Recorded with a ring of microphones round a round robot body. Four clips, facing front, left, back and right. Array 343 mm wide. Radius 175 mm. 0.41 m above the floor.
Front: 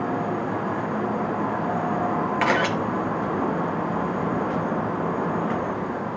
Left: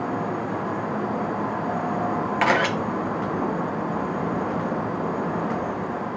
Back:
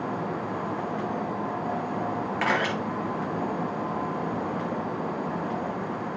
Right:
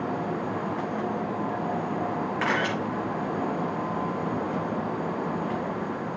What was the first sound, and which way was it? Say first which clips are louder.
A camera shutter: left 7 dB, front 3 dB; 60° left.